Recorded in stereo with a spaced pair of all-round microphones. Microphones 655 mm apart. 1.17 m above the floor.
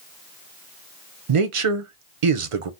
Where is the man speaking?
55° right (ahead or behind), 0.6 m.